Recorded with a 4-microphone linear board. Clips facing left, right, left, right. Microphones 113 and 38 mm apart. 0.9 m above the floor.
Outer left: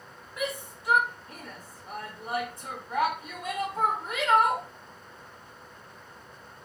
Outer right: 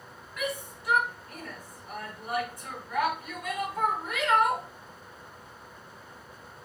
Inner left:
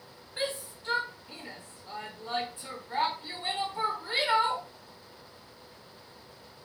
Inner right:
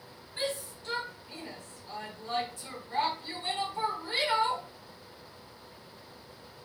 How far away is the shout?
About 1.1 m.